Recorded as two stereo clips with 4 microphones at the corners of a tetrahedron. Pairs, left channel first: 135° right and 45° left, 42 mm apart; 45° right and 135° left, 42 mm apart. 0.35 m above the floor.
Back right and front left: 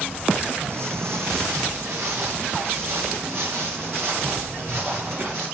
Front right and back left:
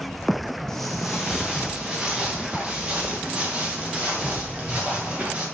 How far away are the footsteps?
About 1.0 m.